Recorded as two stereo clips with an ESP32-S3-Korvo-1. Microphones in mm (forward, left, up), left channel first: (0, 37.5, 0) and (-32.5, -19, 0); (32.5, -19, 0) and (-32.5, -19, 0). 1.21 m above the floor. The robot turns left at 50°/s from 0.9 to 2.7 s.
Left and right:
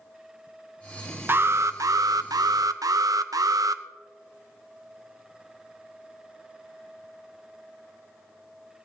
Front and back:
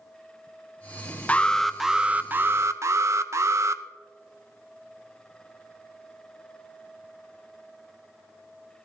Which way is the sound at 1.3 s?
70° right.